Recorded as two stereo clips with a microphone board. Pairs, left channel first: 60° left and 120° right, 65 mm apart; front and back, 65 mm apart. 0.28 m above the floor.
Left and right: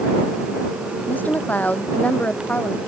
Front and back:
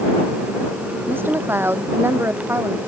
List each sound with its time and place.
1.1 s a woman speaking: 125° left; by 2.9 s 130° left